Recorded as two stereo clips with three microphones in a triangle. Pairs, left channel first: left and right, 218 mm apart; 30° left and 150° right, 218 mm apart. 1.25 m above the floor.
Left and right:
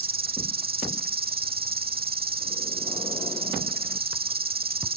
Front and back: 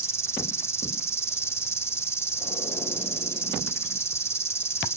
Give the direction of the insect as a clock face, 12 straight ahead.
2 o'clock.